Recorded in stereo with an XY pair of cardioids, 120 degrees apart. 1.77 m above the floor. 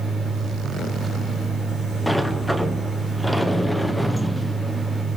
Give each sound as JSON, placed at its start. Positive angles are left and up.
{"t": 0.0, "sound": "a machine running", "azimuth_deg": -15, "distance_m": 4.5}
{"t": 2.1, "sound": "a sliding door", "azimuth_deg": 0, "distance_m": 1.4}